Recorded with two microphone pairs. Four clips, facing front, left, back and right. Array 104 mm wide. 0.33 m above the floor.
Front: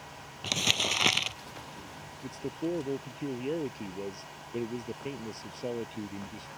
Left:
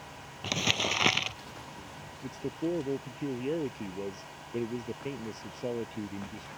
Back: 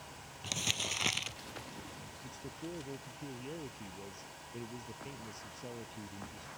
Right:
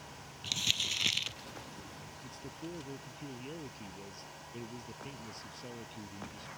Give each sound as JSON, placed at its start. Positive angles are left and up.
{"t": 0.4, "sound": "crumpling", "azimuth_deg": 65}
{"t": 2.2, "sound": "a man speaking", "azimuth_deg": 50}